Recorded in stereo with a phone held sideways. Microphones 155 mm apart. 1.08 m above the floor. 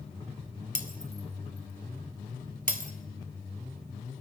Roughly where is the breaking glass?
Right.